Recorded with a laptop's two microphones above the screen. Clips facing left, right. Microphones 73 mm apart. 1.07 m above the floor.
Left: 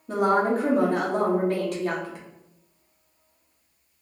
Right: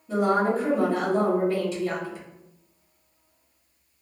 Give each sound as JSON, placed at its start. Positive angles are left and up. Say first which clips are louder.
{"t": 0.1, "sound": "a woman speaking", "louder": "left 1 dB", "side_deg": 60, "distance_m": 1.1}